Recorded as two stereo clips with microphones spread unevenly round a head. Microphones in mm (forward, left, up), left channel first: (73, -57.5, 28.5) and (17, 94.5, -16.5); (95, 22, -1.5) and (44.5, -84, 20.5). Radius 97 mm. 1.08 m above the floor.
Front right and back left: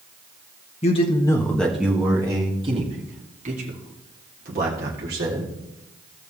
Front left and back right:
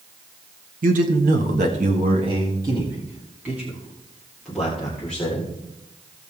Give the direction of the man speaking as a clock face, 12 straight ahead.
4 o'clock.